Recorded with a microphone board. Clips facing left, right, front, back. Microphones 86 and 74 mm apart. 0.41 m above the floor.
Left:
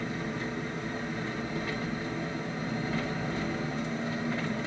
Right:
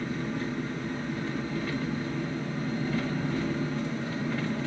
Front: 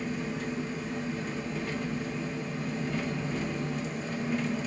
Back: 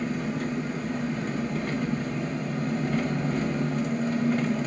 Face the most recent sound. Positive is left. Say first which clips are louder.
# right 2 dB, back 4 dB
turn(degrees=155)